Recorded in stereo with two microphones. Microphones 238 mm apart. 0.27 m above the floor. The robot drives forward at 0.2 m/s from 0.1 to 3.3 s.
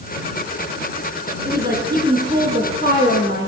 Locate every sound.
1.4 s a woman speaking: 40° right (ahead or behind), 7 m